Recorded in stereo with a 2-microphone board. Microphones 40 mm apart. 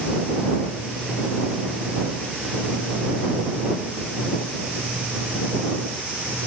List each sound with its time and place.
Only background noise.